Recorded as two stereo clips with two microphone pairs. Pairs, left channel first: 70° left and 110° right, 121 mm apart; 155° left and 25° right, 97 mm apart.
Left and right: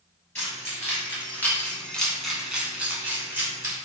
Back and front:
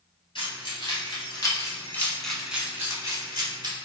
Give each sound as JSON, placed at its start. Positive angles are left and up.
{"t": 0.3, "sound": "keys jangling", "azimuth_deg": 135, "distance_m": 1.6}